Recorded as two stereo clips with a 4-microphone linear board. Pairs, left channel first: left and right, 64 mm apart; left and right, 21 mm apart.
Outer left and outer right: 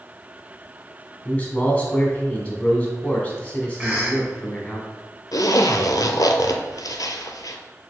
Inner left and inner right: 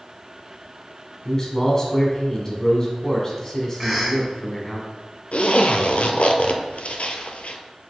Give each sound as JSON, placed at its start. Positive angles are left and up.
{"t": 1.2, "sound": "a man speaking", "side_deg": 20, "distance_m": 1.1}
{"t": 3.8, "sound": "a cough", "side_deg": -15, "distance_m": 1.3}
{"t": 5.3, "sound": "a zipper", "side_deg": 85, "distance_m": 0.5}